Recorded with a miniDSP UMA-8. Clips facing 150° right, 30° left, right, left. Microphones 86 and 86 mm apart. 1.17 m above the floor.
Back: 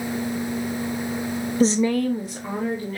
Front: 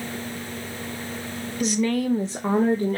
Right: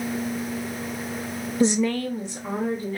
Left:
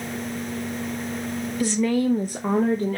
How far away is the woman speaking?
About 0.7 m.